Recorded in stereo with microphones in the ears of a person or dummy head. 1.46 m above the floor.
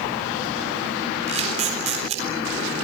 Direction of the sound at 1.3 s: 35° right (ahead or behind).